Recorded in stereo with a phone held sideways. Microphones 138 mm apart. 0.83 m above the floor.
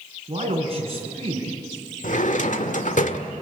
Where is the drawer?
65° left (ahead or behind), 1.6 m.